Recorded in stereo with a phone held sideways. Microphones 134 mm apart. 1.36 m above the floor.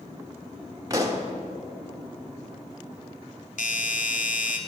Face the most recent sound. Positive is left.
turn(degrees=75)  # may be behind; listen again after turning